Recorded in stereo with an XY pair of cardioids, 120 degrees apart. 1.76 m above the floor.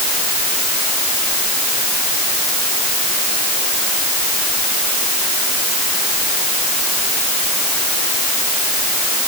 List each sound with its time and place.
Only background noise.